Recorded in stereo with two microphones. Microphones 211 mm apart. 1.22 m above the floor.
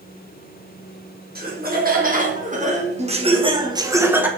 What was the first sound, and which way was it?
Laughter, 45° right (ahead or behind).